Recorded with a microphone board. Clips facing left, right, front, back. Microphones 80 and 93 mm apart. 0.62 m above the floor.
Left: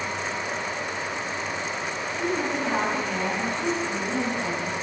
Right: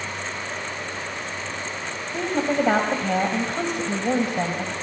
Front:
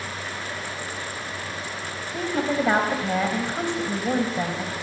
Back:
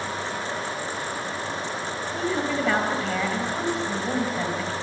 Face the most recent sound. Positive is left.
turn(degrees=-65)